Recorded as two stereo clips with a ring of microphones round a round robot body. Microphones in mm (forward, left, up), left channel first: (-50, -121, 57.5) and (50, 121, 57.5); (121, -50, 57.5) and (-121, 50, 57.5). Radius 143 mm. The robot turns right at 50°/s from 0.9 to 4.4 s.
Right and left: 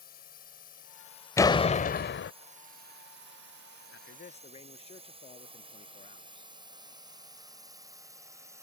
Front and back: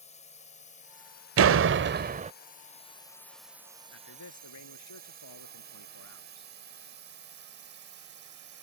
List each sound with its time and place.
0.0 s a drone: 75° right; by 8.6 s 145° left
1.4 s a door slam: 170° left; by 2.3 s 145° right
3.9 s a man speaking: 70° right; by 6.5 s 45° right